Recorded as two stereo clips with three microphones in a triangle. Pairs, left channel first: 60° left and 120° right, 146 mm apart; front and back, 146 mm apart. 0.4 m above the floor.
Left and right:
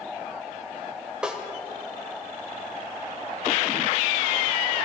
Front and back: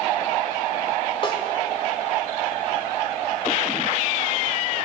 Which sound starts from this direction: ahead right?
A snare drum, at 1.2 s.